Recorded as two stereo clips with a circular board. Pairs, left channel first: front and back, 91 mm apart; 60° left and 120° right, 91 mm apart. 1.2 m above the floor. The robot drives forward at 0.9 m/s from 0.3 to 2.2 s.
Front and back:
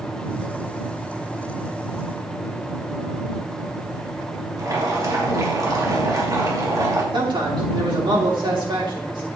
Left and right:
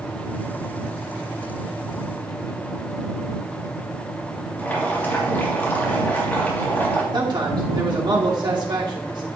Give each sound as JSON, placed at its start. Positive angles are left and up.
{"t": 4.6, "sound": "boiling", "azimuth_deg": 130, "distance_m": 2.5}
{"t": 7.1, "sound": "a man speaking", "azimuth_deg": -155, "distance_m": 3.0}